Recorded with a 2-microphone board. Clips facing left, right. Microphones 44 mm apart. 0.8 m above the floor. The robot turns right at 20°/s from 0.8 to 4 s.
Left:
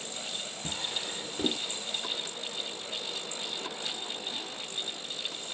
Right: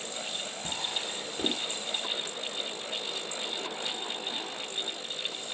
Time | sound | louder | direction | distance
0.6 | a drawer | right 1 dB | 15° left (ahead or behind) | 1.4 m